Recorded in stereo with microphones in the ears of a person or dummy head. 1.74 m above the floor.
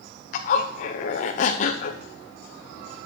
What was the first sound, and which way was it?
A zipper, 40° left (ahead or behind).